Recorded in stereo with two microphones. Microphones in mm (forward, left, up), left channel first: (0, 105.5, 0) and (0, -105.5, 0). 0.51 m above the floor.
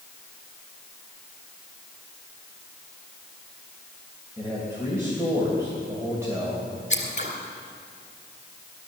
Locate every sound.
4.4 s a man speaking: 15° right (ahead or behind), 3 m
6.9 s scissors: 40° left (ahead or behind), 3 m